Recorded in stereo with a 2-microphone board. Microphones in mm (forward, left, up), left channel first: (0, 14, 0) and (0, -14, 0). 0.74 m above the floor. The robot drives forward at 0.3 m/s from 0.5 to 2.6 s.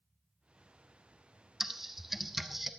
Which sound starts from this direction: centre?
Typing on a keyboard, at 1.6 s.